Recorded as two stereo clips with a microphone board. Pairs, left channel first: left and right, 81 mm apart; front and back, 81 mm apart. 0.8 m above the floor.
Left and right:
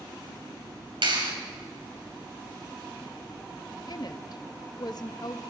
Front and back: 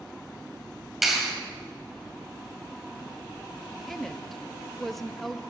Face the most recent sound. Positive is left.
turn(degrees=85)